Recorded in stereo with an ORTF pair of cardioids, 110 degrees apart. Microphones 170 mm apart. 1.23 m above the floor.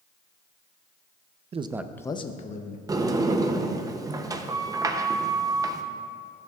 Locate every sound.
1.5 s a man speaking: 40° right, 0.6 m; by 2.8 s 50° left, 1.3 m
2.9 s a sliding door: 20° right, 0.7 m